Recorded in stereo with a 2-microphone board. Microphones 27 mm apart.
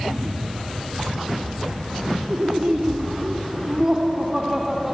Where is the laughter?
40° right (ahead or behind), 2.0 m; by 5.0 s 15° right (ahead or behind), 2.5 m.